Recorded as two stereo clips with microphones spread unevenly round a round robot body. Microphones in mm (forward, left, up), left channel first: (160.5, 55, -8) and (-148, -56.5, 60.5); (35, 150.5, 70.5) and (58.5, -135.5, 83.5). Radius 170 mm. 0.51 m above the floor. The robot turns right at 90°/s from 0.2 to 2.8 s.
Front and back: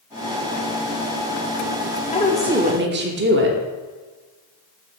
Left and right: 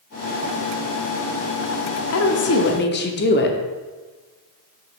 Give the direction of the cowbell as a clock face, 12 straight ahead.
I don't hear a cowbell.